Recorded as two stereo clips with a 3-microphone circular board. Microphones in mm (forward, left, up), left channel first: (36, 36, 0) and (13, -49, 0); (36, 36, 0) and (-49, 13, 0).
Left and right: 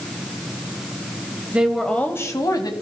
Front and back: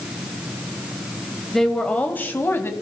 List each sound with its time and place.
1.5 s a woman speaking: 65° right, 1.0 m; by 2.7 s 70° left, 1.6 m